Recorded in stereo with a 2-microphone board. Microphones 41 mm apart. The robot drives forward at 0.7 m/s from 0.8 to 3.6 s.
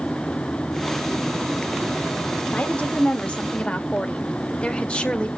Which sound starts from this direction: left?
A woman speaking, at 2.5 s.